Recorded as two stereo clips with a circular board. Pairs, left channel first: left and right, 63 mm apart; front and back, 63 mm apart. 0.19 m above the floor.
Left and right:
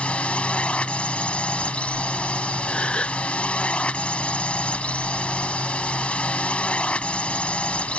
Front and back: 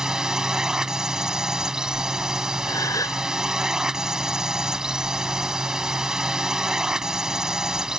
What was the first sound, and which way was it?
A drone, 120° left.